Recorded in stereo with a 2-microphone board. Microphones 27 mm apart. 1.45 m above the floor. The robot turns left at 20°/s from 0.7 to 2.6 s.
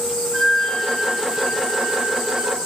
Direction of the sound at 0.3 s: 5° left.